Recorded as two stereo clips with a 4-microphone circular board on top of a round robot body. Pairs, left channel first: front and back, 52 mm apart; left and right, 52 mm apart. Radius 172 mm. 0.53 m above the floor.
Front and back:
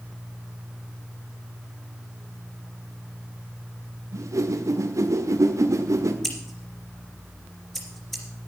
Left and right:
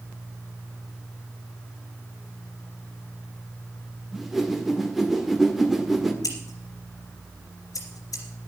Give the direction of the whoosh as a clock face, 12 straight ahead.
6 o'clock.